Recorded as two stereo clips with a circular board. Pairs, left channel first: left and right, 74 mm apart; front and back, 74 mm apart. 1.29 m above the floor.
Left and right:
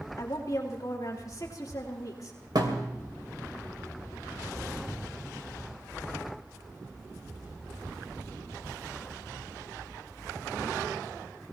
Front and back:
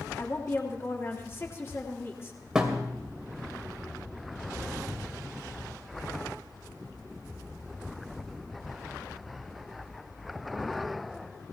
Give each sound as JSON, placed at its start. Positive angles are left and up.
{"t": 0.2, "sound": "a woman speaking", "azimuth_deg": 55, "distance_m": 3.5}
{"t": 2.5, "sound": "a thud", "azimuth_deg": -100, "distance_m": 2.5}